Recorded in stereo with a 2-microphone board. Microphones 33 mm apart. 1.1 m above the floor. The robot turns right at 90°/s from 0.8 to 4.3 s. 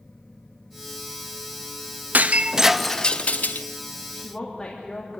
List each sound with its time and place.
2.1 s breaking glass: 55° right, 0.6 m; by 3.7 s 80° left, 0.6 m
4.1 s a woman speaking: 35° left (ahead or behind), 2.5 m; by 5.2 s 15° left (ahead or behind), 2.5 m